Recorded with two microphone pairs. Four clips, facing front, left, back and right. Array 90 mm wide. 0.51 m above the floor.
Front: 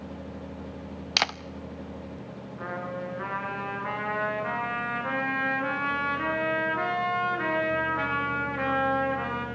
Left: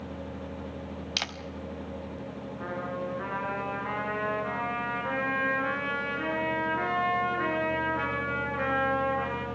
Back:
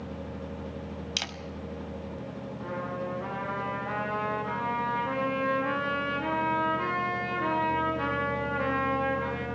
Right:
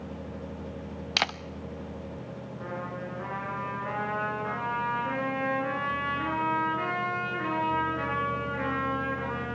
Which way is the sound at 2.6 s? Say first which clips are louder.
Left 3 dB, front 1 dB; 5° left.